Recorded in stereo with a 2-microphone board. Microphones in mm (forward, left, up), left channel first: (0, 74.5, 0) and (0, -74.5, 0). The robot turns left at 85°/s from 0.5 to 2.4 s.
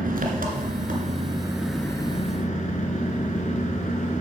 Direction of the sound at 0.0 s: 75° right.